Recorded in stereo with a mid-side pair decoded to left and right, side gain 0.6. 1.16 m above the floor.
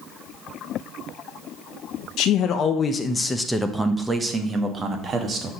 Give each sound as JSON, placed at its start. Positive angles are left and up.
{"t": 2.2, "sound": "a man speaking", "azimuth_deg": 60, "distance_m": 1.0}